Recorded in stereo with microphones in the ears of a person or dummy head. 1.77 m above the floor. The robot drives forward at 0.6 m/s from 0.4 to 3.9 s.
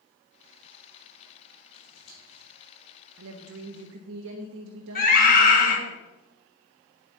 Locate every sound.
1.7 s scissors: 80° left, 4 m; by 2.4 s 75° left (ahead or behind), 4 m
3.2 s a woman speaking: 75° right (ahead or behind), 1.0 m; by 6.0 s 70° right (ahead or behind), 1.0 m
5.0 s a scream: 55° left (ahead or behind), 4 m